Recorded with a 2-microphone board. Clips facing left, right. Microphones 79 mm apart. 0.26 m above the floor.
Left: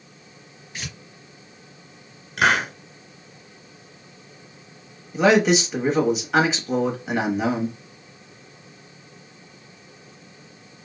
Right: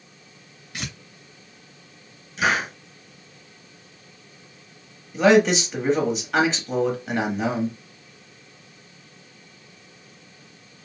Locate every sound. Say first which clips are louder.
0.7 s tearing paper: right 2 dB; 60° right (ahead or behind), 2 m
2.4 s a hiss: left 3 dB; 65° left (ahead or behind), 1.1 m
5.1 s a man speaking: right 1 dB; 5° left (ahead or behind), 1.1 m